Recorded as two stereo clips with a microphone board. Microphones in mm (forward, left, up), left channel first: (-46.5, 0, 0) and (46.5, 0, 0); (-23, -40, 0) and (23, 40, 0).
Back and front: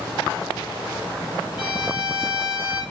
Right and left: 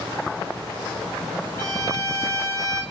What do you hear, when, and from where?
1.6 s a violin: 75° right, 2.5 m